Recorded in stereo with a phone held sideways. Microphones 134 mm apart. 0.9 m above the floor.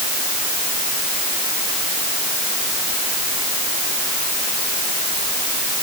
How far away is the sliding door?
I don't hear a sliding door.